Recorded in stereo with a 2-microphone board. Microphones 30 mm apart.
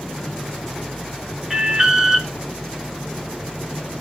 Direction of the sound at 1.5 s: 20° right (ahead or behind).